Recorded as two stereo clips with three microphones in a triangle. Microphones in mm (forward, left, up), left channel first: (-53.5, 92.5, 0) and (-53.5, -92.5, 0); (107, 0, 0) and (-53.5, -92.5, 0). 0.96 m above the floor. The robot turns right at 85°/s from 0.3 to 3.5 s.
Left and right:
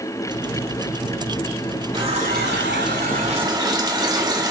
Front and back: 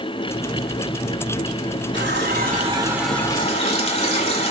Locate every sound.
1.9 s a running tap: 155° right, 2 m; by 4.5 s 25° right, 2 m